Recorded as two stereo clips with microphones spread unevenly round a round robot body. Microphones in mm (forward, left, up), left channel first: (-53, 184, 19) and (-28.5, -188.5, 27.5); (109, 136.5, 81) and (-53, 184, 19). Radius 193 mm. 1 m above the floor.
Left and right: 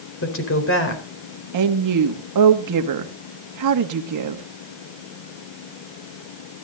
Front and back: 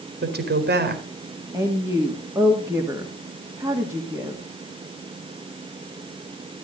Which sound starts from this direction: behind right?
A woman speaking, at 1.5 s.